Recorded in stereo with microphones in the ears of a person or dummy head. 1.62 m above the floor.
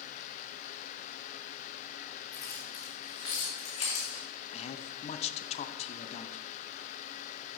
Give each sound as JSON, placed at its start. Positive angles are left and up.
{"t": 2.3, "sound": "keys jangling", "side_deg": 20, "distance_m": 2.5}
{"t": 4.5, "sound": "a man speaking", "side_deg": 35, "distance_m": 0.7}